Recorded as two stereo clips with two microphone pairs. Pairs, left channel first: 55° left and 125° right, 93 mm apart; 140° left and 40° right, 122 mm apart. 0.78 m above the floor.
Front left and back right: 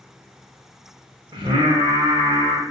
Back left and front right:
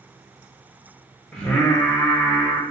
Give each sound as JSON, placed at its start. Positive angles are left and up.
{"t": 1.3, "sound": "singing", "azimuth_deg": -135, "distance_m": 0.9}